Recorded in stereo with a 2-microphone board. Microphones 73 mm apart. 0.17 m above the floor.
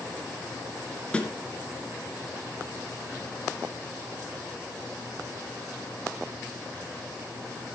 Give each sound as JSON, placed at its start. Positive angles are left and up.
{"t": 1.1, "sound": "a snare drum", "side_deg": 15, "distance_m": 2.0}